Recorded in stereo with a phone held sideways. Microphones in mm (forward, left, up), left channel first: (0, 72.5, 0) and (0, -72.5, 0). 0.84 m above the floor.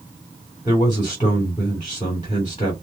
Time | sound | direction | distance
0.7 | a man speaking | 30° left (ahead or behind) | 3 m